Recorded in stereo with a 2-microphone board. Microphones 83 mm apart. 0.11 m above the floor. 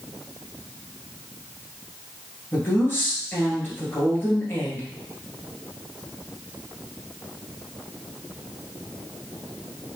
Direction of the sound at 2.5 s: 25° left (ahead or behind).